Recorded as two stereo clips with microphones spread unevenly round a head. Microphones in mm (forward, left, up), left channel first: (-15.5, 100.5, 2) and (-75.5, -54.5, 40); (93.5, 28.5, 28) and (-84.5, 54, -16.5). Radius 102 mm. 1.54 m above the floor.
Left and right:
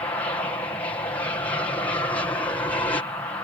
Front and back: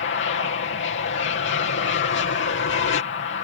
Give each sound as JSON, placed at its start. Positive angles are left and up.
{"t": 0.0, "sound": "an aircraft", "azimuth_deg": 0}